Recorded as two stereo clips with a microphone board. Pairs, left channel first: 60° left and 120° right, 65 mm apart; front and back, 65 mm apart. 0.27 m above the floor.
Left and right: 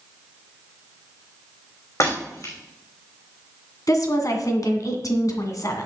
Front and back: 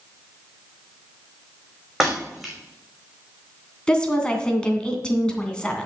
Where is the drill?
I don't hear a drill.